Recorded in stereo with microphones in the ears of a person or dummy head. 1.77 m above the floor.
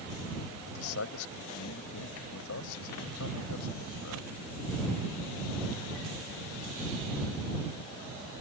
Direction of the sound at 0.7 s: 75° left (ahead or behind).